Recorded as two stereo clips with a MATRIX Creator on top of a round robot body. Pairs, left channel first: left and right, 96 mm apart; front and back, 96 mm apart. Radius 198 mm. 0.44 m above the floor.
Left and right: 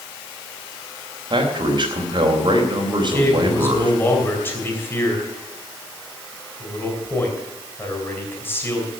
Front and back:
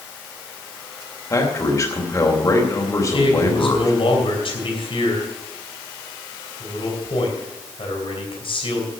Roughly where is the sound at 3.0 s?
Ahead left.